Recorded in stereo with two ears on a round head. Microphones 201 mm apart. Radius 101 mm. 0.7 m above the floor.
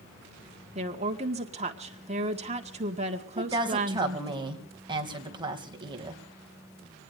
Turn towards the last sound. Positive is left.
turn(degrees=-20)  # may be behind; listen again after turning